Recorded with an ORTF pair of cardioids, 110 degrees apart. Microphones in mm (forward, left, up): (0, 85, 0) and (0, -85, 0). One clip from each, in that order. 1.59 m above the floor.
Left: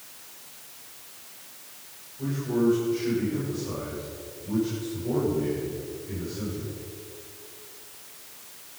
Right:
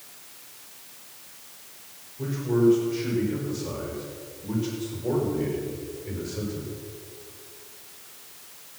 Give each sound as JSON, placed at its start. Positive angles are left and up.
{"t": 2.2, "sound": "a man speaking", "azimuth_deg": -35, "distance_m": 6.5}